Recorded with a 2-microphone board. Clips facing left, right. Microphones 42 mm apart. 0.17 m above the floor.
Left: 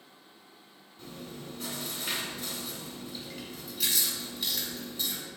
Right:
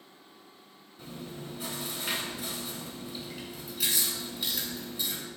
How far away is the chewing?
About 1.5 m.